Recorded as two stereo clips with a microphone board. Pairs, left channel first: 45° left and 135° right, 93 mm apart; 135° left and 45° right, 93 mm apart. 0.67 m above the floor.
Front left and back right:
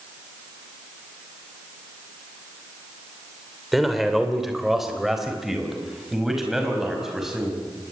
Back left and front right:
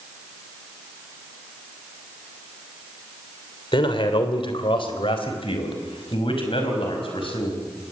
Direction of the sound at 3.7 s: 135° left.